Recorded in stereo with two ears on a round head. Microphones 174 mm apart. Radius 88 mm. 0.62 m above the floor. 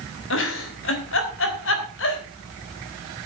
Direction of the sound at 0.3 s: 65° left (ahead or behind).